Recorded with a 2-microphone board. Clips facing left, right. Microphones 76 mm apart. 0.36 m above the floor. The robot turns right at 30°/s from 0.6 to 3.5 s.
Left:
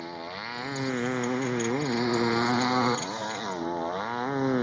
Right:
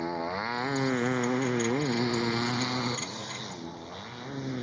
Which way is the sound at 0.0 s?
25° right.